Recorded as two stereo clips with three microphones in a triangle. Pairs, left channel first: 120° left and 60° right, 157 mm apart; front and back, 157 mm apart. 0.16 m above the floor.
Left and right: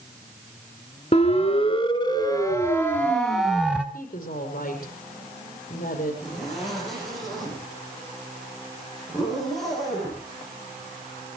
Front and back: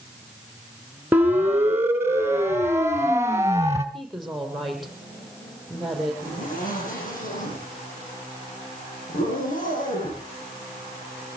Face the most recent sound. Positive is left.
turn(degrees=30)